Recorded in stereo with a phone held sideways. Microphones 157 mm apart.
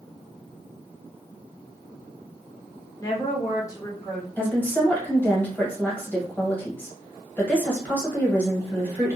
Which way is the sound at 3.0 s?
20° left (ahead or behind).